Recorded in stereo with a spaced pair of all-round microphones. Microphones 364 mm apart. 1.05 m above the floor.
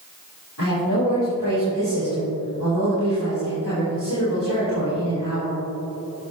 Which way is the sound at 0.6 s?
60° left (ahead or behind).